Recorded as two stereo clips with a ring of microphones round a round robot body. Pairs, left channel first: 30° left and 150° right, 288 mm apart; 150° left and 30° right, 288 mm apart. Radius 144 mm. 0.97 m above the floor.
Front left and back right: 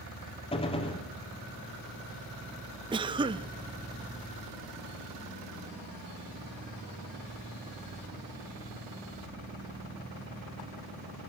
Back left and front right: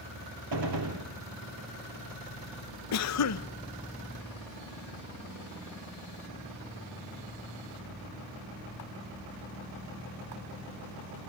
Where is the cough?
140° left, 0.7 m.